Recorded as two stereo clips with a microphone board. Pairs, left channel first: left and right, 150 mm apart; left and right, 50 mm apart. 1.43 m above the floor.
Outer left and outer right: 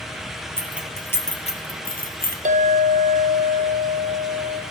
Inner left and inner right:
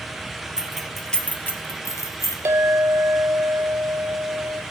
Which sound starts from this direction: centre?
Keys jangling, at 0.6 s.